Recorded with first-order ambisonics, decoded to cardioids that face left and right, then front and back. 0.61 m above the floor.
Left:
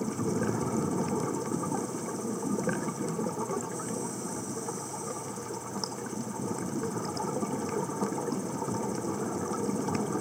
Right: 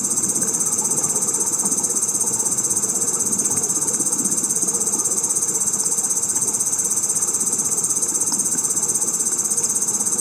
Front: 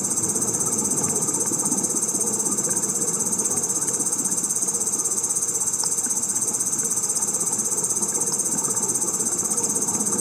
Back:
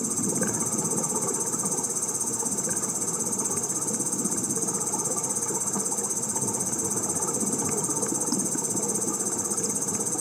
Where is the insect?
75° right.